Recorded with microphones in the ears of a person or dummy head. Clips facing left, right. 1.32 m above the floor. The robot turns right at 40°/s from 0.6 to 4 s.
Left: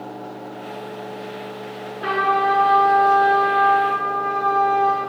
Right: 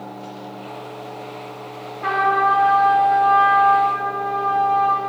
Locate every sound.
2.0 s a trumpet: 15° left, 0.7 m; by 5.0 s 95° left, 0.7 m